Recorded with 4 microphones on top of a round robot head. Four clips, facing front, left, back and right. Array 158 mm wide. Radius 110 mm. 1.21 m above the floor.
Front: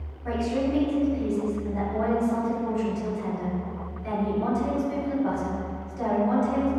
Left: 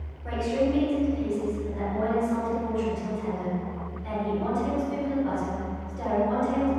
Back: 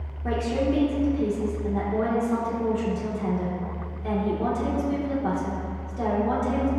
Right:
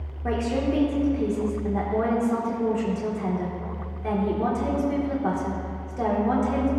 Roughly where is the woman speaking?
Behind right.